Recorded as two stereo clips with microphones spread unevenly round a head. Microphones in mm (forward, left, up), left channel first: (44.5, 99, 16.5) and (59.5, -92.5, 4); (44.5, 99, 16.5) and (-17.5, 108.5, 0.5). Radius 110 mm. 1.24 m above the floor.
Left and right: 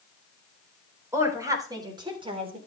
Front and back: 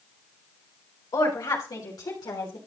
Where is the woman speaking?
10° right, 4 m; by 2.6 s 25° right, 3.5 m.